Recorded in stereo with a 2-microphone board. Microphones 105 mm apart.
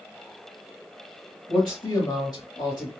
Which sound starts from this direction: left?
A man speaking, at 1.5 s.